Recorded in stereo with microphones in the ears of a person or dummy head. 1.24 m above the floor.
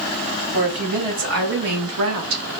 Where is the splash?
I don't hear a splash.